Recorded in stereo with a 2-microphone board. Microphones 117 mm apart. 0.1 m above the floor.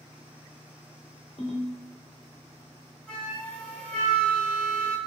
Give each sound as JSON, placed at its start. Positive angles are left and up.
{"t": 1.4, "sound": "a ringtone", "side_deg": 60, "distance_m": 2.0}
{"t": 3.1, "sound": "a flute", "side_deg": 10, "distance_m": 1.1}